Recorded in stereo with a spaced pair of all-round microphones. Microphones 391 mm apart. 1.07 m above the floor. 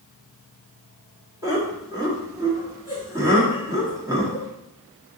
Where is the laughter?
10° right (ahead or behind), 1.8 m.